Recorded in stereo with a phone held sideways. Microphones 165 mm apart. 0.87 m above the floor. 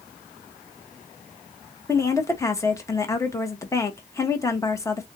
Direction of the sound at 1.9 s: 15° left (ahead or behind).